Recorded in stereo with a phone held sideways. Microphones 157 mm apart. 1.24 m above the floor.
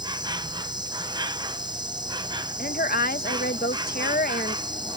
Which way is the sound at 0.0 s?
25° right (ahead or behind).